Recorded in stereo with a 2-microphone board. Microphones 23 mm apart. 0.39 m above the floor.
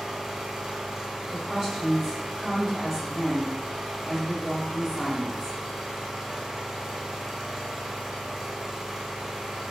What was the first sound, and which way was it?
An engine running, 30° right (ahead or behind).